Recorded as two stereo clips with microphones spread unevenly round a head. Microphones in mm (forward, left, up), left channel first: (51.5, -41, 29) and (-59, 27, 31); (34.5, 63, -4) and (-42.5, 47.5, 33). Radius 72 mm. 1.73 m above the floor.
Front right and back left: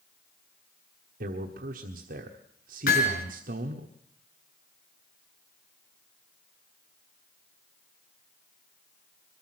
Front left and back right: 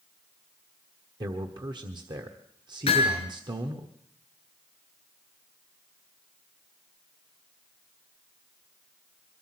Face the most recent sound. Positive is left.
turn(degrees=-10)